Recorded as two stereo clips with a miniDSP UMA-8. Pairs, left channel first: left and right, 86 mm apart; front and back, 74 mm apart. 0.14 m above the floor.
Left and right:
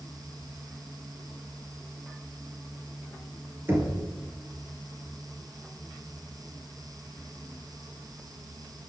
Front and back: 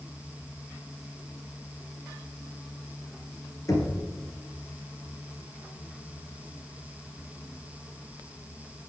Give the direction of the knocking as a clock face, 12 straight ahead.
1 o'clock.